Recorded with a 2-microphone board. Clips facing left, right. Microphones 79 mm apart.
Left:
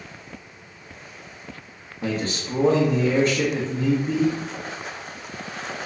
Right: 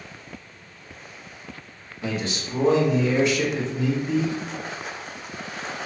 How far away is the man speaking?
About 0.7 m.